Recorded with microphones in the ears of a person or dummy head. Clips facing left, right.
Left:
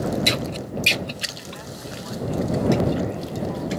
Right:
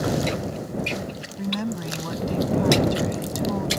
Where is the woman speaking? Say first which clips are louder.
Right 9 dB; 80° right.